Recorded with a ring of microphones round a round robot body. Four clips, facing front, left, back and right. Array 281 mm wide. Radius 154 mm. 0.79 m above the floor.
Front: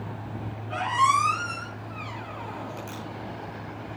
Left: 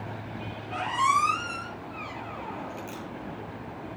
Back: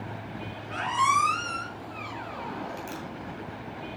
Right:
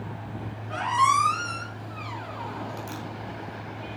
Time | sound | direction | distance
0.7 | a squeak | 110° right | 5 m